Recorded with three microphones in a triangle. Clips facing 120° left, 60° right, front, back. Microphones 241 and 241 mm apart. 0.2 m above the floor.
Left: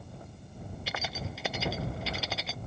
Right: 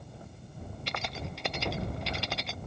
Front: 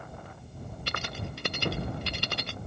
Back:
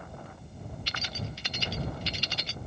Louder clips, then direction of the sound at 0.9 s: Even, front 4 dB; 35° left.